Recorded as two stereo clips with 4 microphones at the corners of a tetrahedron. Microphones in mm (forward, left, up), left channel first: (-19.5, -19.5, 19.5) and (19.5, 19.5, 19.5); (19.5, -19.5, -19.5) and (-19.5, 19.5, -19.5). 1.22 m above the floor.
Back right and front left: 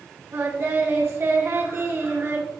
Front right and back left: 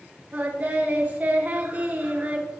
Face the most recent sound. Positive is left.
turn(degrees=80)